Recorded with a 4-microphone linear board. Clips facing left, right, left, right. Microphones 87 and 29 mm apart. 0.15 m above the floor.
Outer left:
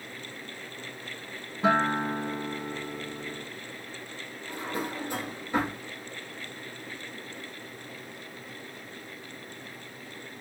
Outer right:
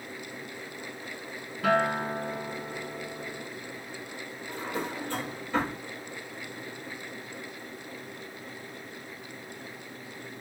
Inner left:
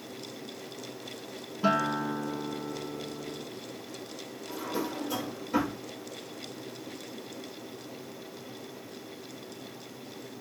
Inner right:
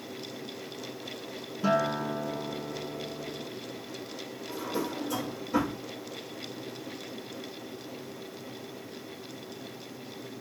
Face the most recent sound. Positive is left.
turn(degrees=15)  # may be behind; listen again after turning